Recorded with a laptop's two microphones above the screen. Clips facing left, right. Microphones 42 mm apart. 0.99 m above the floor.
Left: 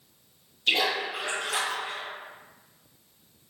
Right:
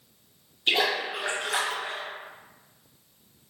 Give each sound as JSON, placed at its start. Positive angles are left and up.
{"t": 0.7, "sound": "a splash", "side_deg": -35, "distance_m": 1.6}